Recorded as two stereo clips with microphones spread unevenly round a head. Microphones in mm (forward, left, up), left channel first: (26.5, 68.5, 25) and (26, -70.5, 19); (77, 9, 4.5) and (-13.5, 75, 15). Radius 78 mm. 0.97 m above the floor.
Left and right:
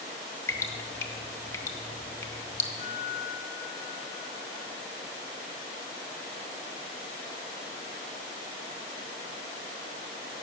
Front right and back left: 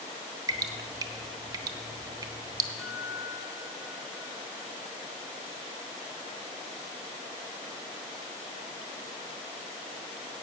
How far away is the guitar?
About 1.8 m.